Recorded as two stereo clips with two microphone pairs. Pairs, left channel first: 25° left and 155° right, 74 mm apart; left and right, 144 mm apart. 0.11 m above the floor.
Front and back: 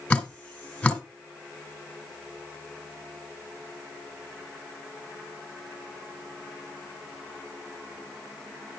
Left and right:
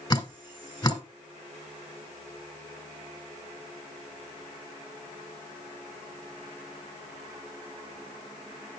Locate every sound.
0.1 s dripping: 70° left, 1.8 m